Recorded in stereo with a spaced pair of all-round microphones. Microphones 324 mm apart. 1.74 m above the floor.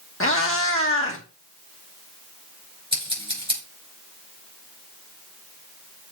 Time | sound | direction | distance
0.2 | a cat meowing | 40° left (ahead or behind) | 1.4 m
2.9 | scissors | 15° right (ahead or behind) | 5.5 m